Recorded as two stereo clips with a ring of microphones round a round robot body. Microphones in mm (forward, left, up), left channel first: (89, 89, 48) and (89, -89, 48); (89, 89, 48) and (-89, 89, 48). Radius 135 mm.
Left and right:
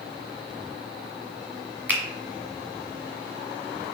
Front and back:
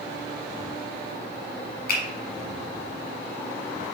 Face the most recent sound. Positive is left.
turn(degrees=-10)